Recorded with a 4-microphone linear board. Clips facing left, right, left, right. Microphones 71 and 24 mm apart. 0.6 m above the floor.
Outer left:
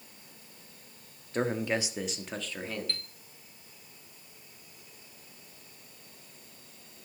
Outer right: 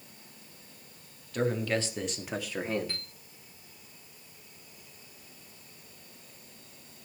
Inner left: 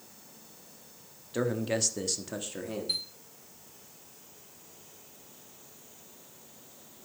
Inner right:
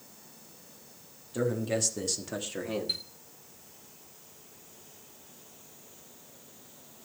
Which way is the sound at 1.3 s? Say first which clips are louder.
Outer right 1 dB, even; 35° left (ahead or behind).